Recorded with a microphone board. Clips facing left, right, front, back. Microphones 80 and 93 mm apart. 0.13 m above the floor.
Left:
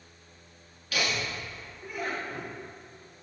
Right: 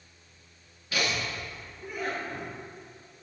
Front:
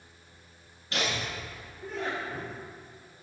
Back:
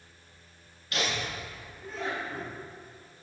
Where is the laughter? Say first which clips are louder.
Even, even; 40° right, 1.6 m; by 2.5 s 30° right, 2.5 m.